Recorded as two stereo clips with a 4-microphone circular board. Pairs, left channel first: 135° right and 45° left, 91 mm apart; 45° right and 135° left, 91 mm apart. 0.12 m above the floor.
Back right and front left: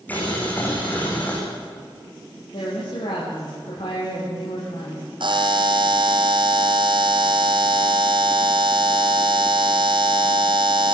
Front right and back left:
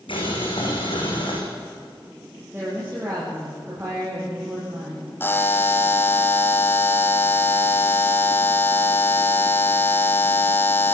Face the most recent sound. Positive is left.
turn(degrees=20)